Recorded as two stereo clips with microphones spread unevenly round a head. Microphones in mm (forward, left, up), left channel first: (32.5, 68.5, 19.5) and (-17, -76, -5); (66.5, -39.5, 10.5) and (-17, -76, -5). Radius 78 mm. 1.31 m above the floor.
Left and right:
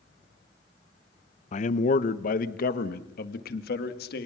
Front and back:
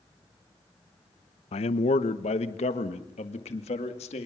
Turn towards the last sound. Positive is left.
turn(degrees=45)